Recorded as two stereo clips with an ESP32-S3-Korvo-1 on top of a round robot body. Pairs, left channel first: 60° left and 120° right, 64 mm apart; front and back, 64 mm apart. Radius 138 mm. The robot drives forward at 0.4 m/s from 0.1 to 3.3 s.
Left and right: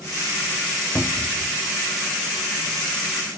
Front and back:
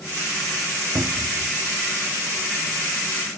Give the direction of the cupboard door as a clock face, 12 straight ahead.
7 o'clock.